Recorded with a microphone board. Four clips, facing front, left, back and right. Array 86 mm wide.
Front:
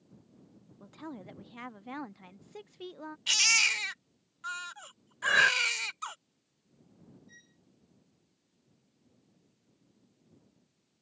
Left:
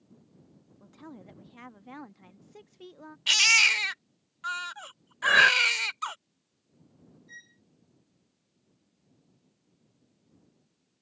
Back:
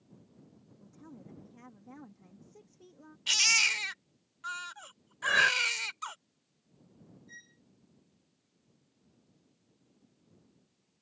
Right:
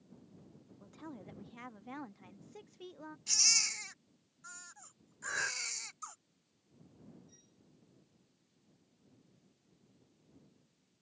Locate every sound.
0.8 s a woman speaking: 5° left
3.3 s a baby crying: 90° left
5.2 s breathing: 85° left
7.3 s a violin: 110° left